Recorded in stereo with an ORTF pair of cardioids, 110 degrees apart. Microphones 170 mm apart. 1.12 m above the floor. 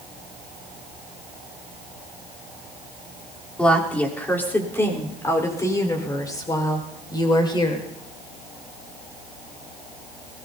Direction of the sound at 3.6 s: 5° left.